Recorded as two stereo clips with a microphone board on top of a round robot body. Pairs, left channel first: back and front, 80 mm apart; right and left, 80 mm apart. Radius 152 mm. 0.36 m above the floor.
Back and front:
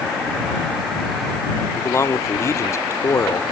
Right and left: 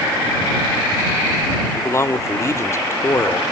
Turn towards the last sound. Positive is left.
turn(degrees=-135)